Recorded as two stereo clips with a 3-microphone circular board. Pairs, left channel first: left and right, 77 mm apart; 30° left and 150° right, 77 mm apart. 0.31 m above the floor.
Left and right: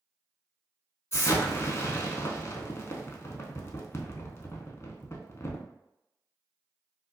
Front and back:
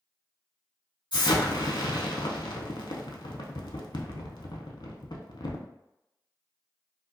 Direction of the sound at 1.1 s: 40° left.